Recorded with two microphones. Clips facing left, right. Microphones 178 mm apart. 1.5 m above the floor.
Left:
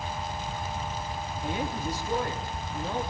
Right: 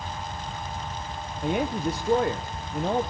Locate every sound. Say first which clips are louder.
1.4 s a woman speaking: right 7 dB; 65° right (ahead or behind), 1.1 m